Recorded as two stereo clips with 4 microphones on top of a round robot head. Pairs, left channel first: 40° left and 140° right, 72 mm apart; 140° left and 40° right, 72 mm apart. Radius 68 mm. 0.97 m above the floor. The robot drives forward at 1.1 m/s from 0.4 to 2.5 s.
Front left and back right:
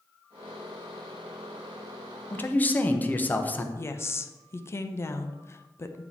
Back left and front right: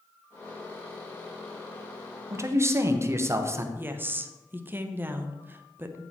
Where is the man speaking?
10° right, 1.1 m; by 3.6 s 15° right, 0.9 m.